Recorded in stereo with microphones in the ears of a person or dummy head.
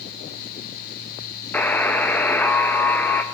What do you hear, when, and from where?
1.5 s a buzzer: 15° left (ahead or behind), 1.3 m